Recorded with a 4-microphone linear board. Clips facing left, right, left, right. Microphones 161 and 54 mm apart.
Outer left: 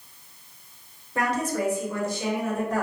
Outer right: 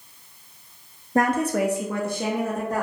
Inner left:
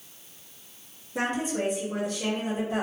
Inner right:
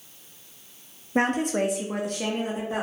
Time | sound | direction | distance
1.1 | a woman speaking | 40° right (ahead or behind) | 0.6 m